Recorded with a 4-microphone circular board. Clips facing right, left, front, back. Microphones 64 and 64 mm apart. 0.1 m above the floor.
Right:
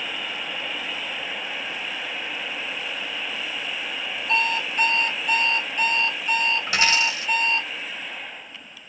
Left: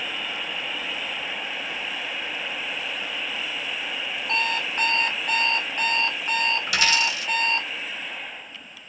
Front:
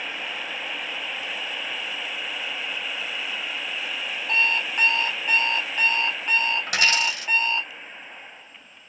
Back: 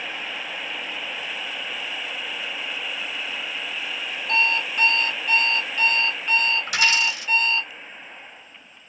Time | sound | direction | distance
4.3 | an alarm clock | 60° left | 0.7 m
6.7 | a dropped coin | 30° right | 1.4 m